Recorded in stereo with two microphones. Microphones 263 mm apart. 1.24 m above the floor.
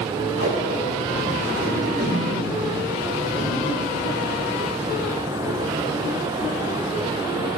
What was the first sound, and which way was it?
Tape being pulled, 60° right (ahead or behind).